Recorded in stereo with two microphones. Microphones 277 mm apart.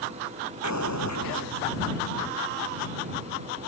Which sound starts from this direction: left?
An explosion, at 0.6 s.